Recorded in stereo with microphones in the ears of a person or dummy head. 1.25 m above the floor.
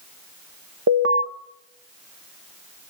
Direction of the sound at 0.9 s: 65° right (ahead or behind).